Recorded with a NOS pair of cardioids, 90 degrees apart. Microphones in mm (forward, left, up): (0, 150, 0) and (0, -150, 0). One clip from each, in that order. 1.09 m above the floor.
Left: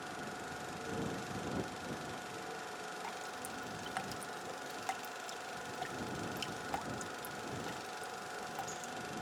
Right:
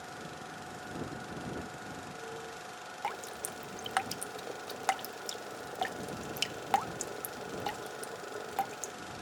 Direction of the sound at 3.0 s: 45° right.